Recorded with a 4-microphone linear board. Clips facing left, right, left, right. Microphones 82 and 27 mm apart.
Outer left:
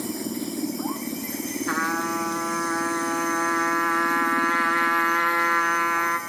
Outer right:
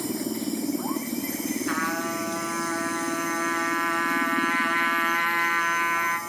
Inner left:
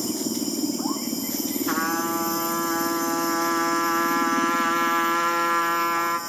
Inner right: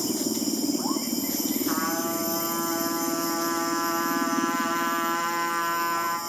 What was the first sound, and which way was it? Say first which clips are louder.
A trumpet: outer left 4 dB, inner left 6 dB; 20° left (ahead or behind).